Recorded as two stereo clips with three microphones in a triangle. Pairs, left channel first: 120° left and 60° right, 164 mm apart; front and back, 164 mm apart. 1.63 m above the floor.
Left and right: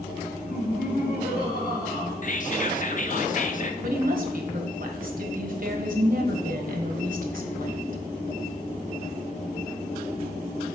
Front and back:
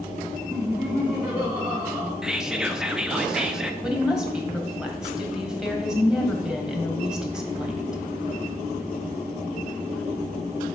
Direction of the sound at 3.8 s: 95° right.